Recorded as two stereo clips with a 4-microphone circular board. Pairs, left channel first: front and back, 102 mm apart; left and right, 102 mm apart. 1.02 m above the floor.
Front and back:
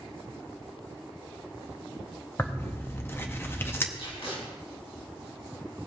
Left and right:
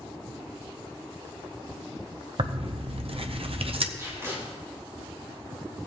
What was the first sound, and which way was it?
Tearing paper, 65° right.